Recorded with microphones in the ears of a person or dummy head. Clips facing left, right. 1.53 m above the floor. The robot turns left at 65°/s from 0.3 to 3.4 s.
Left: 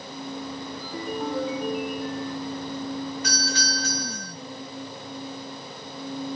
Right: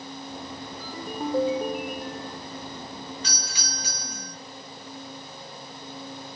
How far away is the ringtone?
About 0.8 m.